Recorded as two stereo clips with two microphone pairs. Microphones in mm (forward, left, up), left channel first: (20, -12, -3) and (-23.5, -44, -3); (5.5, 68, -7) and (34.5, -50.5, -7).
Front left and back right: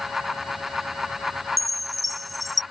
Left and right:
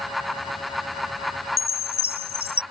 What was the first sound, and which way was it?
A chime, 130° left.